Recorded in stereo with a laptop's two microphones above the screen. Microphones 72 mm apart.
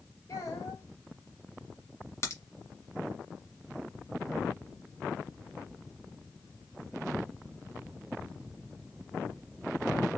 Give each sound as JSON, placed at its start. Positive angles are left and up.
{"t": 0.3, "sound": "a child speaking", "side_deg": 55, "distance_m": 1.7}
{"t": 2.2, "sound": "a crack", "side_deg": 40, "distance_m": 1.3}